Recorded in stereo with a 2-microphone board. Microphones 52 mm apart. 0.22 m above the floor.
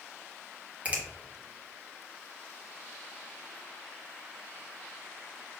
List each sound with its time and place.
0.8 s a finger snap: 25° right (ahead or behind), 1.0 m